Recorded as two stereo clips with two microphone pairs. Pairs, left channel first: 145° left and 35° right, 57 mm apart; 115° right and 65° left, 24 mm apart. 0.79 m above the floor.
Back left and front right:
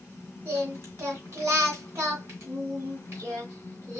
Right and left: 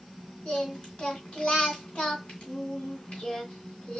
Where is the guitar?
No guitar in this recording.